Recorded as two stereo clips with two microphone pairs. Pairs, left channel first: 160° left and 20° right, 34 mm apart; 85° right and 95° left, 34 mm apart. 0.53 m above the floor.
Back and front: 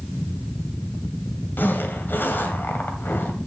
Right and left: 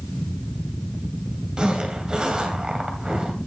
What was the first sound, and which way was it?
A zipper, 160° left.